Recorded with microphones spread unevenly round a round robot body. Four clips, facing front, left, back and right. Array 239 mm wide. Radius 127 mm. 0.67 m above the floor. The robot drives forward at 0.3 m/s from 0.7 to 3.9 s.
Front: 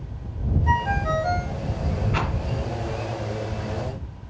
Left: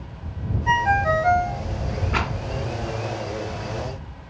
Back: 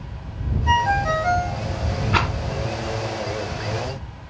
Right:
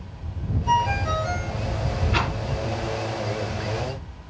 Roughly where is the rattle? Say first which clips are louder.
Even, back 7 dB; behind.